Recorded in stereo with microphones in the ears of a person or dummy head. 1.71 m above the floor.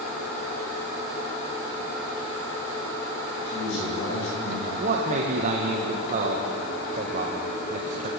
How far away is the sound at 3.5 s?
About 9 m.